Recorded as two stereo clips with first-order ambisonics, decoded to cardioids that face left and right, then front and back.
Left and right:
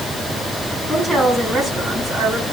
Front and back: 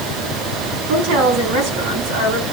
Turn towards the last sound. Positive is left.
turn(degrees=175)